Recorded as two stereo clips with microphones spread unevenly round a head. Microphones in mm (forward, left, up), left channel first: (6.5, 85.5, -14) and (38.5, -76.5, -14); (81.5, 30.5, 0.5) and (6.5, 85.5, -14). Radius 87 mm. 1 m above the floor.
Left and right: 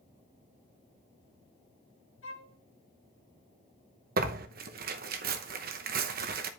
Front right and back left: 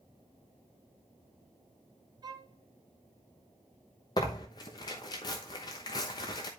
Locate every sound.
2.2 s a violin: 105° left, 2.5 m
4.2 s tearing paper: 95° right, 0.9 m